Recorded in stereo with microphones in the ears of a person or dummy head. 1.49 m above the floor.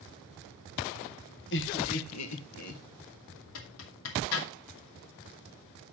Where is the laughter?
60° left (ahead or behind), 2.0 m; by 2.8 s 70° left (ahead or behind), 2.5 m.